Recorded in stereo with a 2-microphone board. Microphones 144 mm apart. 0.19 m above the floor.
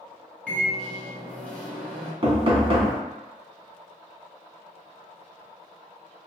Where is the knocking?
40° right (ahead or behind), 0.9 m.